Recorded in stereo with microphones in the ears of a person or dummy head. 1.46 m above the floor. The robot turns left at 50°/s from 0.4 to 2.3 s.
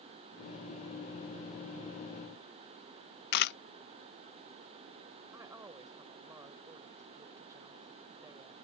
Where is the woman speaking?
5° right (ahead or behind).